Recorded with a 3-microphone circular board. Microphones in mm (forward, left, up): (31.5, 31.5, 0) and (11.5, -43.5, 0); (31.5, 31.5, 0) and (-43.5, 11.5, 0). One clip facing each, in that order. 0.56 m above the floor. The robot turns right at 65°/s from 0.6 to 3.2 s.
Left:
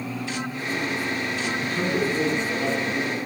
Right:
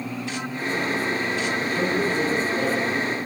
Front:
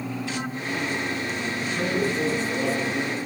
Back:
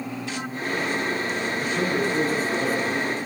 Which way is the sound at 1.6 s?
105° left.